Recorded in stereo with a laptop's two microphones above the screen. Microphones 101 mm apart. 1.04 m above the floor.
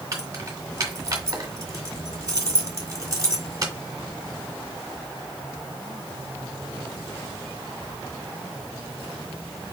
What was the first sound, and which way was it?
Keys jangling, 35° right (ahead or behind).